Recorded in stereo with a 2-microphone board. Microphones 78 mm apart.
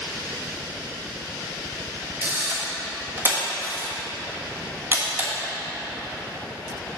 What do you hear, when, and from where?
2.2 s a camera shutter: 25° right (ahead or behind), 1.5 m